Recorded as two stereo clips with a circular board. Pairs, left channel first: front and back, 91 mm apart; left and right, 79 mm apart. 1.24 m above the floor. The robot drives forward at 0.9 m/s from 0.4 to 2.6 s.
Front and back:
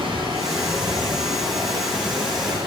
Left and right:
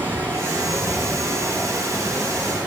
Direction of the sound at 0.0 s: 150° right.